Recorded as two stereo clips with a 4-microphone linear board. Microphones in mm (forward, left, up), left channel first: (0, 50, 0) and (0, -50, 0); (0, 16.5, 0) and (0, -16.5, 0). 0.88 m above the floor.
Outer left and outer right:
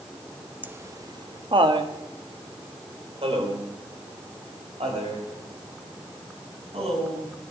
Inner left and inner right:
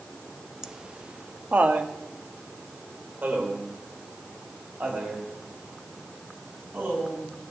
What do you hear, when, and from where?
0.6 s laughter: 15° right (ahead or behind), 0.7 m; by 7.3 s 75° right (ahead or behind), 7 m